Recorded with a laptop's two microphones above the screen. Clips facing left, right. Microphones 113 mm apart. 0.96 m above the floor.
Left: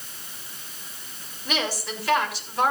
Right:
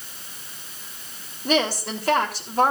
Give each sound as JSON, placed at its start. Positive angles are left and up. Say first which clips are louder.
{"t": 1.4, "sound": "a woman speaking", "louder": "right 6 dB", "side_deg": -45, "distance_m": 3.5}